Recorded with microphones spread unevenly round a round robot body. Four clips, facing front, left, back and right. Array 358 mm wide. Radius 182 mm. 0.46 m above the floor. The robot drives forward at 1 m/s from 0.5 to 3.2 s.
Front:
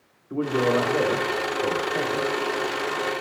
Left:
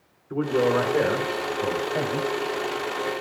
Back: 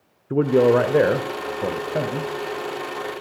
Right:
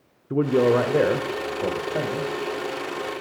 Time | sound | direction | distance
0.3 | a man speaking | 170° right | 1.5 m